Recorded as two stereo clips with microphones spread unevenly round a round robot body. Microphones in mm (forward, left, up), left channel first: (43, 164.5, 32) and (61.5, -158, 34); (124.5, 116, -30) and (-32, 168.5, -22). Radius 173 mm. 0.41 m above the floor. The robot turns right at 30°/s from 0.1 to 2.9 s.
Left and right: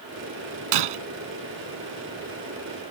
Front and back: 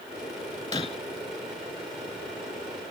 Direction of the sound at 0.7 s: 95° right.